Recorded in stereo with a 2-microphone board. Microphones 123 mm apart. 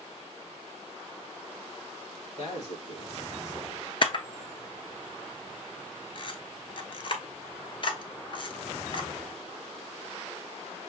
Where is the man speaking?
60° left (ahead or behind), 4 m; by 3.8 s 75° left (ahead or behind), 3.5 m.